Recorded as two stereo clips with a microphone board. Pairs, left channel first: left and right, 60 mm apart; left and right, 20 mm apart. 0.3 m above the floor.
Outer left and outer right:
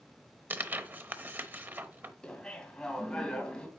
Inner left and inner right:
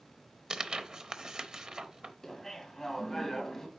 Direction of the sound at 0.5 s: 35° right (ahead or behind).